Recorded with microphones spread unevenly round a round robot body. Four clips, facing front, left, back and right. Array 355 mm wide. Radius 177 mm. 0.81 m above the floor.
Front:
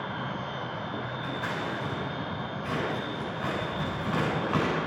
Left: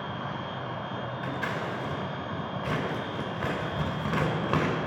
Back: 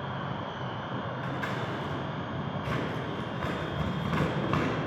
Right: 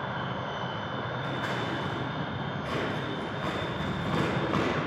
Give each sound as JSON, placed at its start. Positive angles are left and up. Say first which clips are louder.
{"t": 1.2, "sound": "scissors", "louder": "left 2 dB, front 2 dB", "azimuth_deg": 140, "distance_m": 2.5}